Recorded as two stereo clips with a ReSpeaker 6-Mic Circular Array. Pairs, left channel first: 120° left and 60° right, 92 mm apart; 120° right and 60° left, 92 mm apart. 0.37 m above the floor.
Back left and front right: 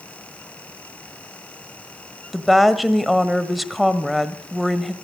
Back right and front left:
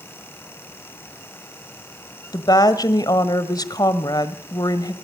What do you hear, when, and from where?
2.3 s a woman speaking: 150° right, 1.5 m